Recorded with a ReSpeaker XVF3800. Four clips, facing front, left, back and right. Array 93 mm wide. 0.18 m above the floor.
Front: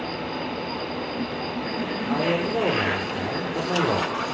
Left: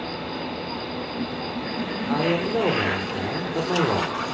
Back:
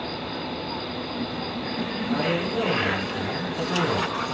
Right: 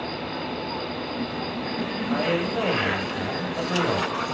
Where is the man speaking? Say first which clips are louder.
Left 2 dB, front 2 dB; 70° left, 6 m.